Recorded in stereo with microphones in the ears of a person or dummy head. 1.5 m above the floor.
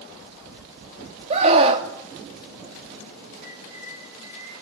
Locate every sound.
1.3 s a scream: 30° right (ahead or behind), 3 m
3.4 s a bird: 65° right (ahead or behind), 10 m